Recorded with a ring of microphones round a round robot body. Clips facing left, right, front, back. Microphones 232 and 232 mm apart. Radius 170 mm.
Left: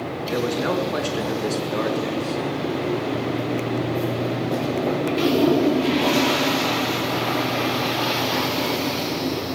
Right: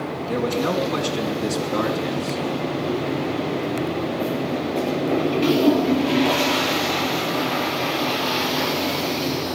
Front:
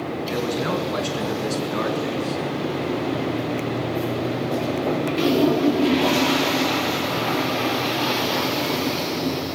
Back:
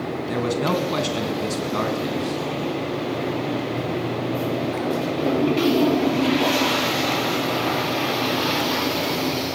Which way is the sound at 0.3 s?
160° right.